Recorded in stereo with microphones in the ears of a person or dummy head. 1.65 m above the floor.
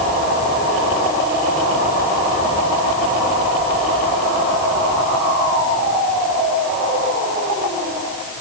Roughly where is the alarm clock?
I don't hear an alarm clock.